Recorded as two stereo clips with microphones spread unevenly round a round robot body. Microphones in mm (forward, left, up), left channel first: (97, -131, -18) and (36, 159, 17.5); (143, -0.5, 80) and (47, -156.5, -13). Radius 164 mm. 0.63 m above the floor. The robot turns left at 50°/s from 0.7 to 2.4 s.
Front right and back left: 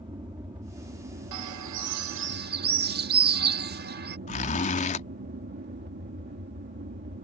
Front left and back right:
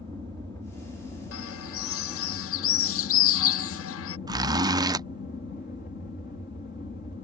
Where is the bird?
100° left; by 4.2 s 45° left.